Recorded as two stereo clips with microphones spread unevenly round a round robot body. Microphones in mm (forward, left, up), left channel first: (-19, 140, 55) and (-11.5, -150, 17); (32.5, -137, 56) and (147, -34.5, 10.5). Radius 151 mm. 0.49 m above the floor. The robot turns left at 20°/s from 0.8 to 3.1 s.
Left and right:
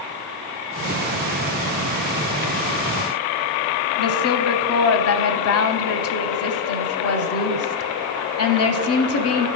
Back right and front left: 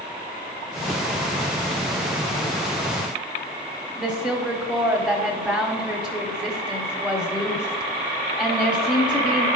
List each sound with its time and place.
4.0 s a woman speaking: 105° left, 0.9 m